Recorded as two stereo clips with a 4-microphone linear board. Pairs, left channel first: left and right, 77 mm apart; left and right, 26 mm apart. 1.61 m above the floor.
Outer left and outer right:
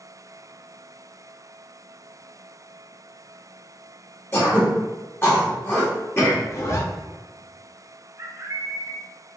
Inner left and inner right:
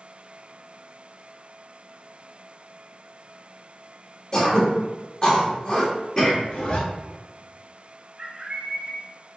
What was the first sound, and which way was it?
Throat clearing, 30° left (ahead or behind).